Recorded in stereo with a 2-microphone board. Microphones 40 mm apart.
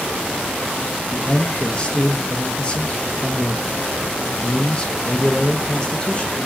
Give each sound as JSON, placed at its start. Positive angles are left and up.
{"t": 1.1, "sound": "a man speaking", "side_deg": 25, "distance_m": 0.7}